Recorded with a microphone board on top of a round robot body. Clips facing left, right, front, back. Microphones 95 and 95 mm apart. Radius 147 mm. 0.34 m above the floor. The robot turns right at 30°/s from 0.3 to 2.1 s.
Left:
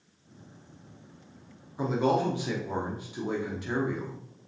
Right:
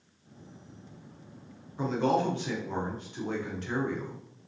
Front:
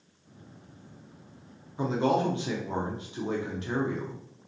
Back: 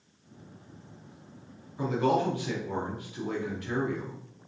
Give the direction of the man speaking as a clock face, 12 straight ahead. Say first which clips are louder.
Left 1 dB, even; 12 o'clock.